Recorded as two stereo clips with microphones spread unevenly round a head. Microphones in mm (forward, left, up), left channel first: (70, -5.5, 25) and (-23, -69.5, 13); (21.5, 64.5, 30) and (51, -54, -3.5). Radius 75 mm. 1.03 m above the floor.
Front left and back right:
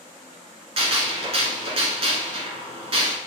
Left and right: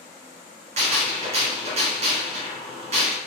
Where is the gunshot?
110° right, 1.6 m.